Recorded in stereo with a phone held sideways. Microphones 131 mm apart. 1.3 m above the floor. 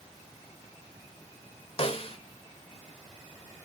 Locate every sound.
1.8 s a snare drum: 45° left (ahead or behind), 1.7 m